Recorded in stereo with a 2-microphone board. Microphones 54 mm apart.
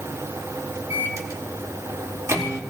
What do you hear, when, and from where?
0.9 s a microwave: 65° right (ahead or behind), 1.8 m